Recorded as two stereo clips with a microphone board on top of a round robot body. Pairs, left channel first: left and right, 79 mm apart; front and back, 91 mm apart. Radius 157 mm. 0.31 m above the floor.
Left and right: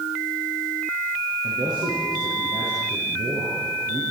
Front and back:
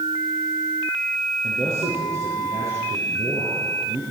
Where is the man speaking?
120° right, 7.5 m.